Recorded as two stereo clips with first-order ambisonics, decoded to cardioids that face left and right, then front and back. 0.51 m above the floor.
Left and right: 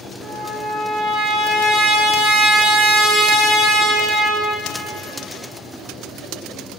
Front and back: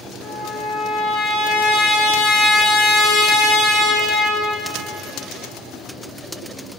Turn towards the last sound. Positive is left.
turn(degrees=-25)